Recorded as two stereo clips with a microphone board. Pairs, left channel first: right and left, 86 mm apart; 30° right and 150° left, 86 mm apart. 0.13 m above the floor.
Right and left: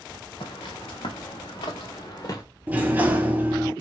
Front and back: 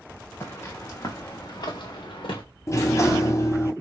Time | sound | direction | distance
0.4 | footsteps | 95° right | 1.6 m
2.7 | a sliding door | 20° left | 0.6 m